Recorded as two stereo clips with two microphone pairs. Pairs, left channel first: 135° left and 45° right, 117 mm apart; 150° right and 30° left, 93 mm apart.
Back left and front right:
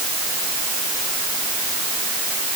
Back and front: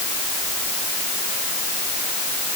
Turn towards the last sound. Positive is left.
No sound to turn to.